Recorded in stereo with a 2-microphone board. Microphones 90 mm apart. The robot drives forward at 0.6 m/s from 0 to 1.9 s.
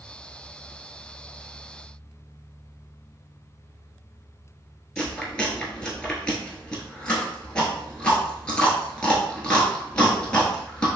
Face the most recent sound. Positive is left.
turn(degrees=10)  # may be behind; listen again after turning